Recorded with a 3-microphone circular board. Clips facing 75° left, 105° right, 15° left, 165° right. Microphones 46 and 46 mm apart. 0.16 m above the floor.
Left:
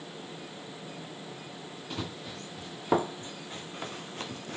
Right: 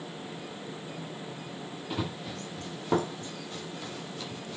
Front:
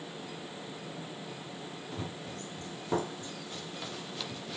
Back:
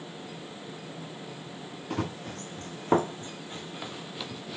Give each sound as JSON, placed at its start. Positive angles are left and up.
{"t": 1.9, "sound": "running footsteps", "azimuth_deg": 175, "distance_m": 1.7}